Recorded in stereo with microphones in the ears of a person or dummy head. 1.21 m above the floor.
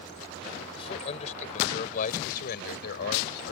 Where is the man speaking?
35° left (ahead or behind); by 3.5 s 65° left (ahead or behind).